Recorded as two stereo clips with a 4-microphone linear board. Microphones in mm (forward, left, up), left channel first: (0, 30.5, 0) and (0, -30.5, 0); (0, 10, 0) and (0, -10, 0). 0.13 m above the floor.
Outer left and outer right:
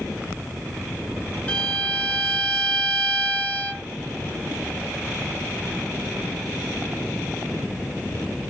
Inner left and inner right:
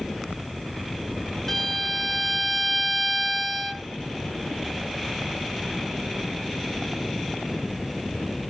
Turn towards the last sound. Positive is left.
turn(degrees=25)  # may be behind; listen again after turning